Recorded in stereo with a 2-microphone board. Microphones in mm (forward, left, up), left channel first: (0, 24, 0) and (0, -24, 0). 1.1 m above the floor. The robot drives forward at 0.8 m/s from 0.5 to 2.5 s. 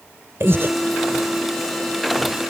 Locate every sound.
0.4 s breathing: 60° right (ahead or behind); by 0.7 s 55° right (ahead or behind)